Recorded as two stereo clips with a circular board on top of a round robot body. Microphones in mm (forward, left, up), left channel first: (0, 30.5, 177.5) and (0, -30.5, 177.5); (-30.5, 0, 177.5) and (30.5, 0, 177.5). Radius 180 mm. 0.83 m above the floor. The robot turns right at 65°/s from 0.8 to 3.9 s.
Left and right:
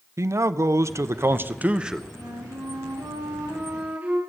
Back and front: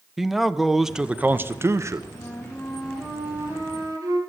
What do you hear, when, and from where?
0.2 s a man speaking: 85° right, 1.0 m; by 2.0 s 5° right, 1.0 m
2.1 s a flute: 135° right, 4 m; by 4.2 s 20° right, 4 m